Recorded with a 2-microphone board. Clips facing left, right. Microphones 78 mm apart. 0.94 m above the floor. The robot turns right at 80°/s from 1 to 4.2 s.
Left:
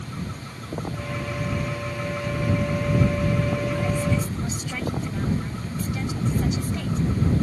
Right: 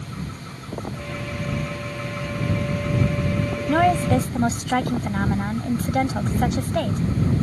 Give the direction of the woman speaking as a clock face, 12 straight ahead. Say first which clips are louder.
Right 7 dB; 3 o'clock.